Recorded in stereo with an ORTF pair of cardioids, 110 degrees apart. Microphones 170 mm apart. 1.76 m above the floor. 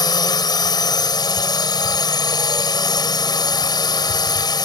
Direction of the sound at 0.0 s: 25° left.